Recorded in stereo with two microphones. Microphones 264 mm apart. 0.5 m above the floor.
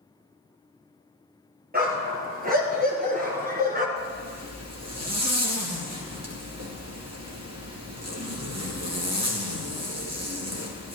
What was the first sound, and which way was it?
A dog barking, 35° right (ahead or behind).